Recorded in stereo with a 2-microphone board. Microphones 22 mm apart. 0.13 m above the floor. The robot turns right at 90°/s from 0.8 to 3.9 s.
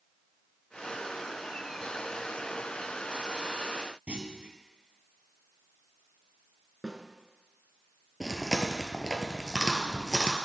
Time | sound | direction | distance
4.1 | a clunk | 60° right (ahead or behind) | 1.0 m
6.8 | a snare drum | centre (ahead or behind) | 1.3 m
8.2 | chewing | 10° right (ahead or behind) | 1.1 m